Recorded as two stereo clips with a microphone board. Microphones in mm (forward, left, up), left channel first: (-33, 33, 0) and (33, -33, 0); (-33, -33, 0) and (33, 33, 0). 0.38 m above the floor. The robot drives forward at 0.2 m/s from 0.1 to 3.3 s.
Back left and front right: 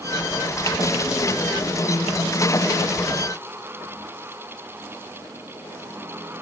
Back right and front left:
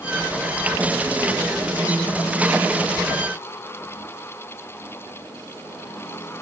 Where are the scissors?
No scissors in this recording.